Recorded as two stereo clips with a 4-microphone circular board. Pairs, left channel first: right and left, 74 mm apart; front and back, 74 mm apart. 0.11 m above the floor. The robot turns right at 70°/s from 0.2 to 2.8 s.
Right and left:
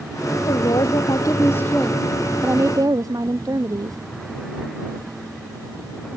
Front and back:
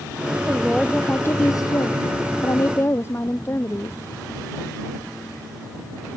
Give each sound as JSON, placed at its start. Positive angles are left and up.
{"t": 0.5, "sound": "a woman speaking", "azimuth_deg": -110}